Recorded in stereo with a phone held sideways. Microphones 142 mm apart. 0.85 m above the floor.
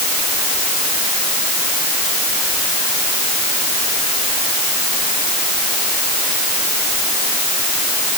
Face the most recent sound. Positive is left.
No sound to turn to.